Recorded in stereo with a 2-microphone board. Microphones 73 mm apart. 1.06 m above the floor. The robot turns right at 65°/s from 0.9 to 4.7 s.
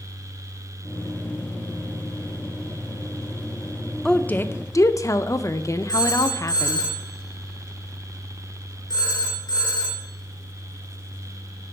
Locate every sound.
4.0 s a woman speaking: 5° left, 0.6 m; by 6.9 s 50° left, 0.6 m
5.9 s a phone ringing: 70° left (ahead or behind), 3 m